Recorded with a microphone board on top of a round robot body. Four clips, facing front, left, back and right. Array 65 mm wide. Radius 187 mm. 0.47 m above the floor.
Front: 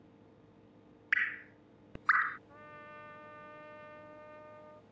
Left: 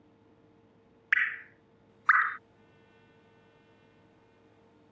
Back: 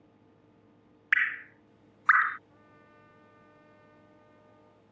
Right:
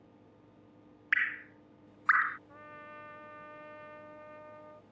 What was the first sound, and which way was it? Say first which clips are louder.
Dripping: left 3 dB, back 6 dB; 160° left.